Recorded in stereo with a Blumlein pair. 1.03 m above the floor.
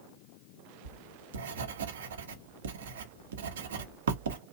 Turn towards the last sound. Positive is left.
turn(degrees=-60)